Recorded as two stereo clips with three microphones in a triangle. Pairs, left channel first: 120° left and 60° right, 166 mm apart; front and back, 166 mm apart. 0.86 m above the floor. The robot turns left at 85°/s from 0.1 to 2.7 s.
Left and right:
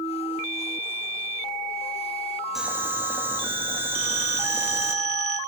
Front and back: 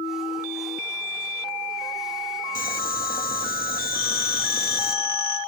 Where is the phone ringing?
75° left, 1.8 m.